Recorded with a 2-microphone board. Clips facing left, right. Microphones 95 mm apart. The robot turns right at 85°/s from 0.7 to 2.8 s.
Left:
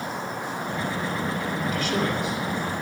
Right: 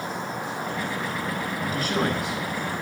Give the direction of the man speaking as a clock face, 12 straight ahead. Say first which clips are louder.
Right 1 dB; 5 o'clock.